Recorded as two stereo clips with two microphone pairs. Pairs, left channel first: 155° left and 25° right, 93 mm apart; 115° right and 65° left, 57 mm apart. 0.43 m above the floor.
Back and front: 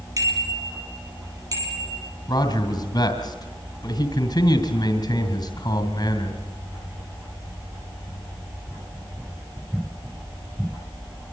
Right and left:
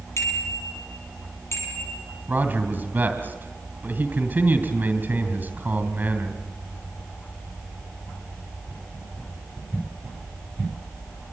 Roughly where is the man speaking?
Behind left.